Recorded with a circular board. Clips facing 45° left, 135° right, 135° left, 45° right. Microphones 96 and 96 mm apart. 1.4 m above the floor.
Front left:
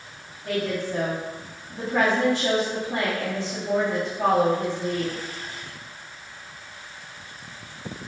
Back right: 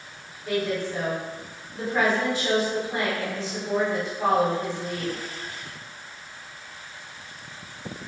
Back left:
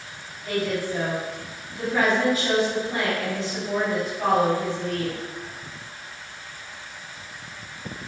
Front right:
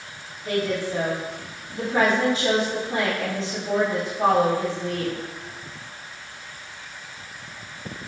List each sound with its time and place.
0.5 s a woman speaking: 15° left, 3 m